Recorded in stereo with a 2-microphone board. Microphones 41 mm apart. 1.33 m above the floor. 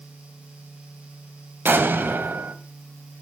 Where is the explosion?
60° right (ahead or behind), 2.0 m.